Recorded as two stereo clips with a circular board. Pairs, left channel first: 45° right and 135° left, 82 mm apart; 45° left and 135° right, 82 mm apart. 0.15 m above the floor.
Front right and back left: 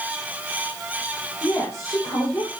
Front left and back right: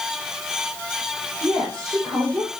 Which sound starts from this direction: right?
A woman speaking, at 1.4 s.